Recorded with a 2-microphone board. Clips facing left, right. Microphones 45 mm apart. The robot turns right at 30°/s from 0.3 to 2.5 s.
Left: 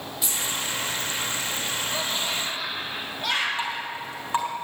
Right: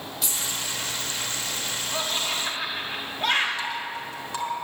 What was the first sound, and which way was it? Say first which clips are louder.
Keys jangling: left 2 dB; 5° left (ahead or behind).